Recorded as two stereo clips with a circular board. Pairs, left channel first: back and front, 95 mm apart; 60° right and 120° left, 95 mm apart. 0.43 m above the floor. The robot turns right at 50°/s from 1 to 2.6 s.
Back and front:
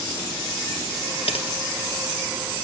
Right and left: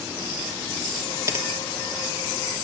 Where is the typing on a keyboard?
Straight behind, 2.5 m; by 1.5 s 170° right, 2.5 m.